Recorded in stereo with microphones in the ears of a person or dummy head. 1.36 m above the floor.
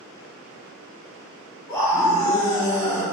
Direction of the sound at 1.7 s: 5° left (ahead or behind).